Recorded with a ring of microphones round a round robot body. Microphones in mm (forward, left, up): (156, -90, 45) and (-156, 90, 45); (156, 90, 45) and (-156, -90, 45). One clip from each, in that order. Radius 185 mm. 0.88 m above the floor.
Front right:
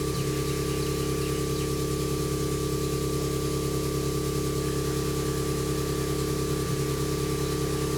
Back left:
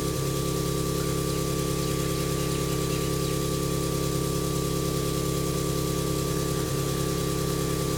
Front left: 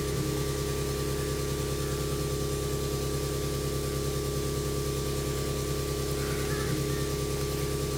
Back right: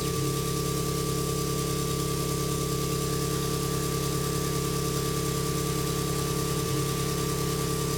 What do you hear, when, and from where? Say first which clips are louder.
0.0 s an engine running: even, back right 2 dB; 130° right, 1.0 m